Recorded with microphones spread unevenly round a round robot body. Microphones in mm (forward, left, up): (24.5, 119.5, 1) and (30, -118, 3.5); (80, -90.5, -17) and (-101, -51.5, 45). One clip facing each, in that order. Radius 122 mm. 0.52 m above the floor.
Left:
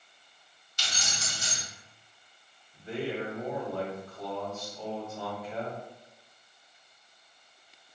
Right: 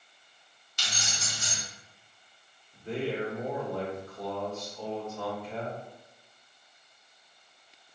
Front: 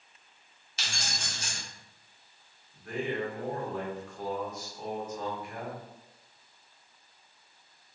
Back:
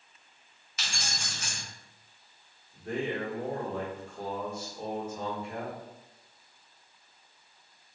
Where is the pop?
I don't hear a pop.